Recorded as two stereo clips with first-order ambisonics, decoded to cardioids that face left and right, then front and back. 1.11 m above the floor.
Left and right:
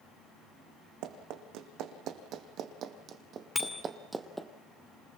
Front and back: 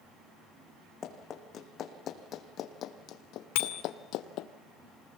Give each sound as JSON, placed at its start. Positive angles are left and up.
{"t": 1.0, "sound": "running footsteps", "azimuth_deg": -60, "distance_m": 3.5}
{"t": 3.5, "sound": "a bicycle bell", "azimuth_deg": 5, "distance_m": 2.5}